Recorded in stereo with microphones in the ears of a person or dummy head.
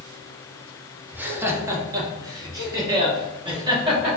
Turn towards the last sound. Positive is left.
turn(degrees=-25)  # may be behind; listen again after turning